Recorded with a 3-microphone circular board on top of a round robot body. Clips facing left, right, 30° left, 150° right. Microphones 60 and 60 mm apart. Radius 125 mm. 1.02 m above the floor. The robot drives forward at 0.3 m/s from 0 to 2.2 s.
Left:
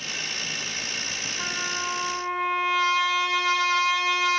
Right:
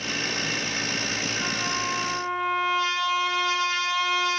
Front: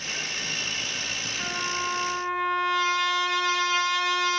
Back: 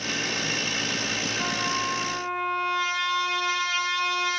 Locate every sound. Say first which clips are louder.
1.4 s a trumpet: left 1 dB, back 1 dB; 155° left, 2.5 m